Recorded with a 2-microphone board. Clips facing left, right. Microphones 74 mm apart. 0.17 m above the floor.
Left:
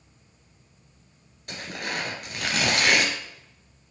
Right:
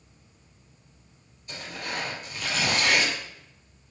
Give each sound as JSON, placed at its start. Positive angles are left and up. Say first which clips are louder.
{"t": 1.5, "sound": "tearing paper", "louder": "left 2 dB", "side_deg": 65, "distance_m": 2.0}